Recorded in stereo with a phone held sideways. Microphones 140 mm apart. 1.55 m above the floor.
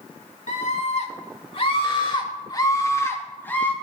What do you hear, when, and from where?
0.5 s a scream: 60° left (ahead or behind), 3 m; by 3.7 s 10° left (ahead or behind), 3 m